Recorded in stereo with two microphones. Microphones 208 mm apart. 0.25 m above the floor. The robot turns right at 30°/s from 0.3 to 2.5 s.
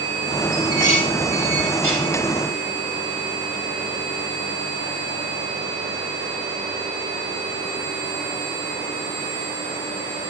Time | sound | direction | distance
0.5 | dishes clattering | 35° right (ahead or behind) | 6.5 m